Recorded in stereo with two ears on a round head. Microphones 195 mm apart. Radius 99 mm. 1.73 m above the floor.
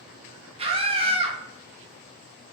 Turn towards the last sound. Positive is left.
turn(degrees=-30)  # may be behind; listen again after turning